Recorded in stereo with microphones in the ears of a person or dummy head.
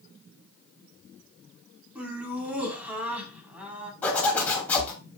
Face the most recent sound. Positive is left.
turn(degrees=10)  # may be behind; listen again after turning